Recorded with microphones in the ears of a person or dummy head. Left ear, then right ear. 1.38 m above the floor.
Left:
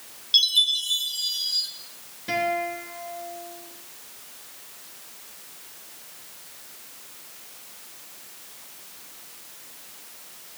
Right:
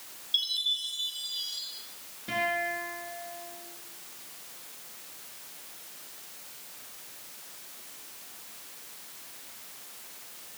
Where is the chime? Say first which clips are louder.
Left 9 dB; 35° left (ahead or behind), 2.5 m.